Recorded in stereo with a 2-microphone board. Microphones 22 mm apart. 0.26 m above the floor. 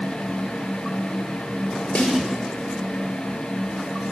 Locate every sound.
1.9 s a snare drum: 60° left (ahead or behind), 5.5 m